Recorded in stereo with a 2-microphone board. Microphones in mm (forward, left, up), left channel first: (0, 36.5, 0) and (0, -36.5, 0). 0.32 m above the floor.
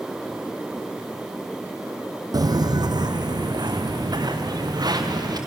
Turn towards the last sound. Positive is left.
turn(degrees=-65)  # may be behind; listen again after turning